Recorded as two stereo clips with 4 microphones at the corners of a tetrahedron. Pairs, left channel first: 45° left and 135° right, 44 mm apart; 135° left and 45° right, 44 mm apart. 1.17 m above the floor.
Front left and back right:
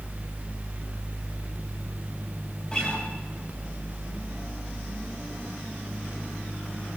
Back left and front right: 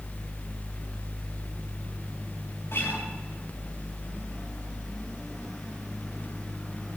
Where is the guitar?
115° left, 6.5 m.